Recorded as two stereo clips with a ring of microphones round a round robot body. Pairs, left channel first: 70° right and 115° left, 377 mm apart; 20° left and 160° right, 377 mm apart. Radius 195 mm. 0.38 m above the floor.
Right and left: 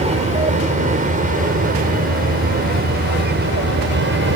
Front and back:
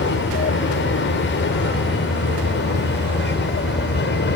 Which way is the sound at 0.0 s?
55° left.